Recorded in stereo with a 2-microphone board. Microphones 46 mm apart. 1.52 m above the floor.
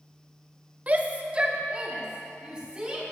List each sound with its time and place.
0.9 s a shout: 35° right (ahead or behind), 0.9 m; by 3.0 s 20° right (ahead or behind), 3 m